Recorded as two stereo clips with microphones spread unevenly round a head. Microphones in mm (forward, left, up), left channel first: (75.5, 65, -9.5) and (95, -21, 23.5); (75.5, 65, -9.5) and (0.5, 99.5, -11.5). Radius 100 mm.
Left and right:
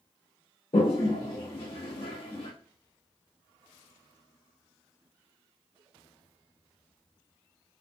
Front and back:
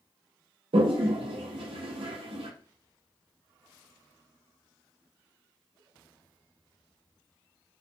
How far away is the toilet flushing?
About 0.6 m.